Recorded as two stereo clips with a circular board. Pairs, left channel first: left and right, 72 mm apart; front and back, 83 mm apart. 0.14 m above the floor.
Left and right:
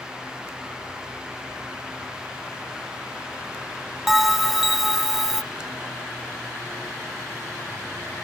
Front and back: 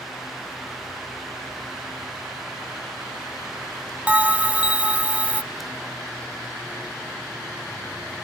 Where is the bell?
170° right, 0.5 m.